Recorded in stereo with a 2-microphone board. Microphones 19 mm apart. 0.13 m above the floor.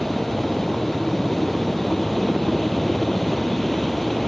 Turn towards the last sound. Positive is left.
turn(degrees=10)  # may be behind; listen again after turning